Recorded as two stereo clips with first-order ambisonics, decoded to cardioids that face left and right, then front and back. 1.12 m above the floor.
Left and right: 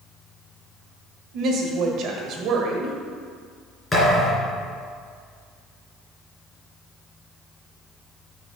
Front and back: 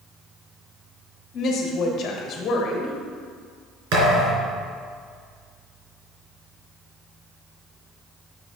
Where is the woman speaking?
50° right, 1.4 m.